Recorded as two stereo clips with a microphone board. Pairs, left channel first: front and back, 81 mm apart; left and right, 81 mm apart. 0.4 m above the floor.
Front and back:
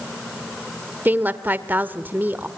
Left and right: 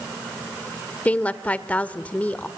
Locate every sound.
1.1 s a woman speaking: 145° left, 1.2 m